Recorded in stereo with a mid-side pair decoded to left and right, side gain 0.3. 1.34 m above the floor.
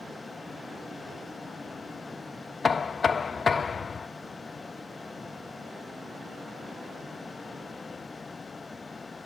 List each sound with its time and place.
0.0 s a fan: 45° left, 1.3 m
2.6 s knocking: 55° left, 0.6 m